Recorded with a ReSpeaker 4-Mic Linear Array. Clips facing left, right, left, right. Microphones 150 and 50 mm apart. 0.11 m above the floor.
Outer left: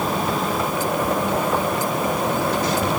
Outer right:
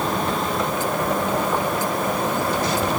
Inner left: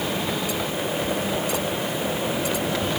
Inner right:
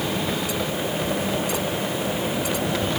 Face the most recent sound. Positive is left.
No sound to turn to.